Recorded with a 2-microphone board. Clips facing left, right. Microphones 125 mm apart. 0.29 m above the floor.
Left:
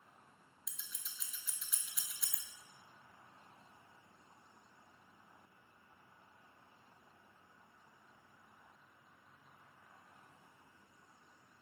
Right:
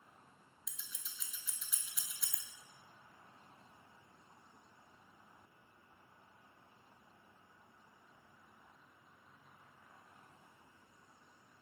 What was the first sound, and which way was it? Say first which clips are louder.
Scissors: even; centre (ahead or behind).